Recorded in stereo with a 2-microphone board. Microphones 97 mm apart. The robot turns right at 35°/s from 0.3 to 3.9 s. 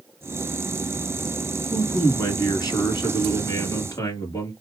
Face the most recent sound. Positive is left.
turn(degrees=110)